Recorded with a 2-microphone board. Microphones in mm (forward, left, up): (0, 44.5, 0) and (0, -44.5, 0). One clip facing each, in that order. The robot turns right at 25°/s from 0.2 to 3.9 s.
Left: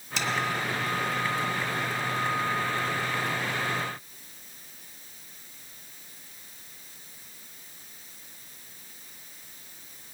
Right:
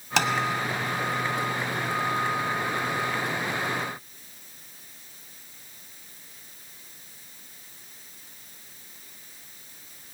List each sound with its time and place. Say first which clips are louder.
0.2 s tapping: right 7 dB; 70° right (ahead or behind), 2 m